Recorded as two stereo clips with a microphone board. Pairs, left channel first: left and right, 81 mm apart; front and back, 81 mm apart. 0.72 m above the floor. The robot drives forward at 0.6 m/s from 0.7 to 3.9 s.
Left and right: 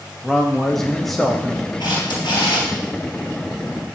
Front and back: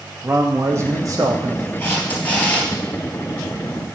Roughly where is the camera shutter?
Ahead left.